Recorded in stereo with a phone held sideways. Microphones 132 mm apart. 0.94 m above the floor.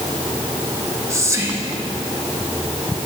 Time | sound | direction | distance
0.7 | whispering | 20° right (ahead or behind) | 1.1 m